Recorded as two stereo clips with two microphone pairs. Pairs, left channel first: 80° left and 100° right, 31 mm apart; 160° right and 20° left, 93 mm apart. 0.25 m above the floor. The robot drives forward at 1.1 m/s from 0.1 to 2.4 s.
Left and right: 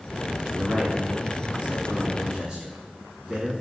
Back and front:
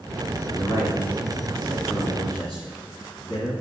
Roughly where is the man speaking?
Behind right.